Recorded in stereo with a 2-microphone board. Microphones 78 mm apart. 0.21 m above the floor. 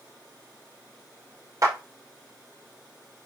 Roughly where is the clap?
Right.